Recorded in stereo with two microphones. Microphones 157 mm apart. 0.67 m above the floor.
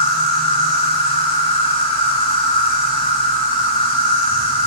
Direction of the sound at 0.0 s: 35° left (ahead or behind).